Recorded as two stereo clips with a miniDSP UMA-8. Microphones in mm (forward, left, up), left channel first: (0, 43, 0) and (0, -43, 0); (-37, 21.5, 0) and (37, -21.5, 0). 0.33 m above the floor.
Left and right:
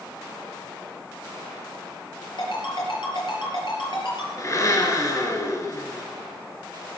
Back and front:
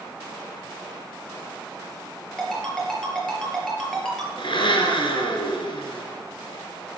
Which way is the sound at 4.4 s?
140° left.